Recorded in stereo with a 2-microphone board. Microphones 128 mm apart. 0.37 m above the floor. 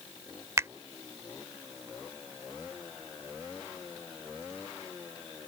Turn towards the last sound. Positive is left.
turn(degrees=-25)  # may be behind; listen again after turning